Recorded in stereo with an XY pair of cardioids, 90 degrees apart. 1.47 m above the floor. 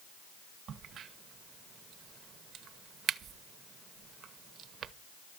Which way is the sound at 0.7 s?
70° right.